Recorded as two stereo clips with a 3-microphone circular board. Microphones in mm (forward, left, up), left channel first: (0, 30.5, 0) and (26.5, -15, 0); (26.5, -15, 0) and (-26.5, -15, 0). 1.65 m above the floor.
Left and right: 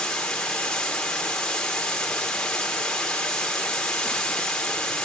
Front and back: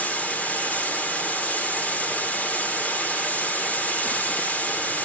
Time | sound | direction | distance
0.0 | running water | 50° left | 1.8 m